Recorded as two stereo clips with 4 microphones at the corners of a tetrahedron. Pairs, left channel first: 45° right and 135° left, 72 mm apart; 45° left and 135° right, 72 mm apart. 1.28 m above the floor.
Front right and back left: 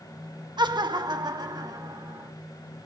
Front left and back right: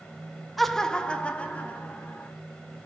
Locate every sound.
0.6 s laughter: 135° left, 1.1 m; by 2.3 s 110° left, 3.5 m